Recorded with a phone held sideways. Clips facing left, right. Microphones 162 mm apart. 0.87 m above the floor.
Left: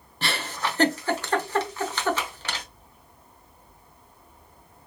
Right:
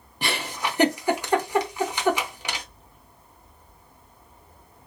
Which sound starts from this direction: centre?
A giggle, at 0.2 s.